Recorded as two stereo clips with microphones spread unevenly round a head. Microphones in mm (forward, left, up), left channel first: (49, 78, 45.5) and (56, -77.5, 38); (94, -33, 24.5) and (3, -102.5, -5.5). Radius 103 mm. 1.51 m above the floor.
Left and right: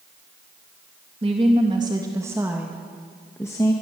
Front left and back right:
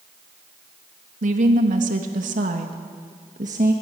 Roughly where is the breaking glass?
I don't hear breaking glass.